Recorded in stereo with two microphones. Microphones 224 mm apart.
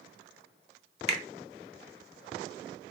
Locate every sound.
1.1 s a finger snap: 30° right (ahead or behind), 0.6 m